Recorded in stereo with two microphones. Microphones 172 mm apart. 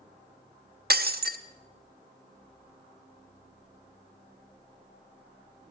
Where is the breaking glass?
65° right (ahead or behind), 0.6 m.